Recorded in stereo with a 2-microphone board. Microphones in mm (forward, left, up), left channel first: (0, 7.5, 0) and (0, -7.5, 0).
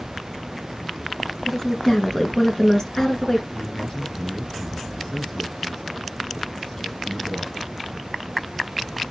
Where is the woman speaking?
40° left (ahead or behind), 2.5 m.